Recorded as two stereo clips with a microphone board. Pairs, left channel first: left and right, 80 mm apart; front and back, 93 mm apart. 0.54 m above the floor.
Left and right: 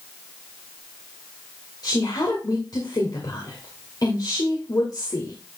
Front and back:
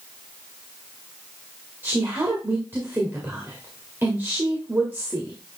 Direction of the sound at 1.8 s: 115° left.